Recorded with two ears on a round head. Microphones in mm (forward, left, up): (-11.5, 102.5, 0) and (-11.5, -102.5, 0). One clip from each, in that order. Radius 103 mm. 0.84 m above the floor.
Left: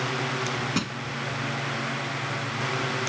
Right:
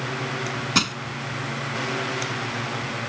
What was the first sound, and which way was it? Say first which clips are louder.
Crushing: right 8 dB; 50° right (ahead or behind).